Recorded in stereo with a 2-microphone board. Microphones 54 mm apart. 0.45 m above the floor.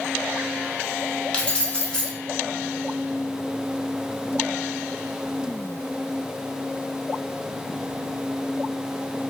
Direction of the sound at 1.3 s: 20° left (ahead or behind).